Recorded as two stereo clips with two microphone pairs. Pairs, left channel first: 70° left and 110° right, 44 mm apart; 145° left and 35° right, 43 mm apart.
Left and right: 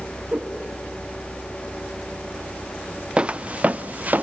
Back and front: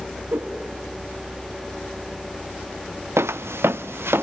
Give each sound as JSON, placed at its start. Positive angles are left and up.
{"t": 0.3, "sound": "a whoosh", "azimuth_deg": -40, "distance_m": 6.5}
{"t": 3.2, "sound": "footsteps", "azimuth_deg": -45, "distance_m": 0.8}